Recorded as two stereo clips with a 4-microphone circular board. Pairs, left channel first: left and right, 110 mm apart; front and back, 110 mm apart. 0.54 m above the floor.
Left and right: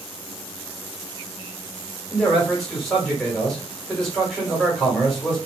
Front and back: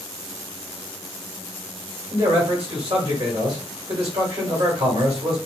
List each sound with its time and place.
2.1 s a man speaking: 175° left, 1.5 m